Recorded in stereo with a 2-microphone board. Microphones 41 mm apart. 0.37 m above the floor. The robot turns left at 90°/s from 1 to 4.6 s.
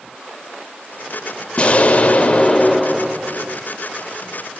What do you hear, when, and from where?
1.6 s an explosion: 120° left, 0.9 m; by 3.6 s 60° right, 0.9 m